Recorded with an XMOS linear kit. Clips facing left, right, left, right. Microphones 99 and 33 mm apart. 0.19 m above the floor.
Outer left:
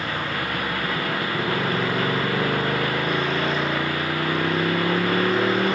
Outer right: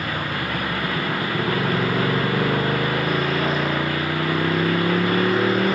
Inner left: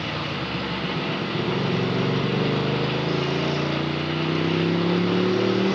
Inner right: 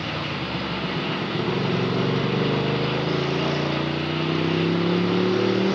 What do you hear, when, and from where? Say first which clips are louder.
0.0 s a motorcycle: outer right 1 dB, even; 5° right (ahead or behind)